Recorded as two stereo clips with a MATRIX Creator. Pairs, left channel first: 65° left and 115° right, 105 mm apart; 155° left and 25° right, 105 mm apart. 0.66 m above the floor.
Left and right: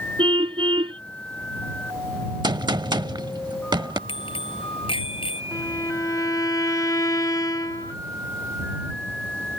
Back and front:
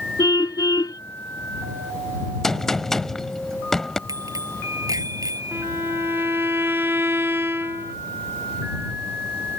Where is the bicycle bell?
35° left.